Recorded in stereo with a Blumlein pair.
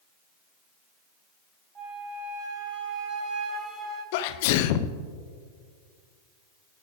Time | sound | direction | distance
1.8 | a flute | 15° right | 4 m
4.1 | a sneeze | 50° left | 0.7 m